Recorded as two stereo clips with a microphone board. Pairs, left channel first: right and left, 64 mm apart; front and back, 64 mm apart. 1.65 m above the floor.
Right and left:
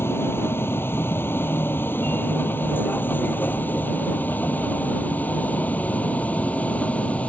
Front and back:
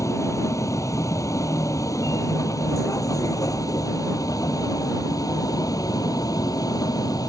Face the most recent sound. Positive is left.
turn(degrees=-20)